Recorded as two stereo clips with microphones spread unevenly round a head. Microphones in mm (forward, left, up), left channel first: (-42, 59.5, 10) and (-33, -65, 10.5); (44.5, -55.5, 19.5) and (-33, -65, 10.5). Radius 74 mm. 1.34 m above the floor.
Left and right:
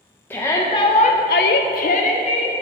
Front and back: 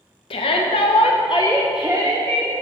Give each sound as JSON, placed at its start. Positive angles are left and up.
{"t": 0.3, "sound": "a shout", "azimuth_deg": 15, "distance_m": 1.0}